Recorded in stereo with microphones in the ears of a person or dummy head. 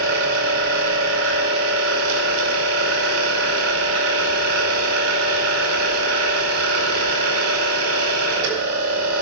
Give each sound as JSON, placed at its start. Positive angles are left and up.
{"t": 0.0, "sound": "a machine running", "side_deg": -85, "distance_m": 4.0}